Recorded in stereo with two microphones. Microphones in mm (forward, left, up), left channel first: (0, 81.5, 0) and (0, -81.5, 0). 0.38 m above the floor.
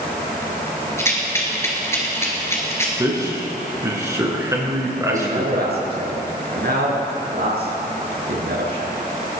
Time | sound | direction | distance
1.0 | a rattle | 15° left (ahead or behind) | 3 m
3.0 | a man speaking | 20° right (ahead or behind) | 4 m
5.1 | a man speaking | 75° right (ahead or behind) | 5 m